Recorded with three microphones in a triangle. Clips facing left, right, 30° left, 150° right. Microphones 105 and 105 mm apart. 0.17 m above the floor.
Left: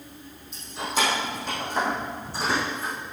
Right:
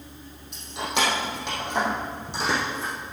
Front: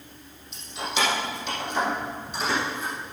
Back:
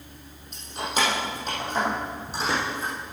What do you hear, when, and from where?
0.5 s keys jangling: 110° right, 4.5 m; by 2.9 s 90° right, 6.5 m